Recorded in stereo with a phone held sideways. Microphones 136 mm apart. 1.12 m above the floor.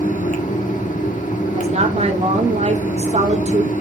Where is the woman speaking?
50° right (ahead or behind), 1.2 m.